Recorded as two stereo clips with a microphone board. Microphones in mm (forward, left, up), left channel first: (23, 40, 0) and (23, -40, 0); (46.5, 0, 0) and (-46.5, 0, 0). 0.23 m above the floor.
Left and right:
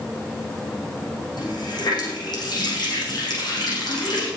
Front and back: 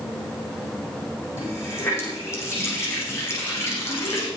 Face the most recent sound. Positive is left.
turn(degrees=60)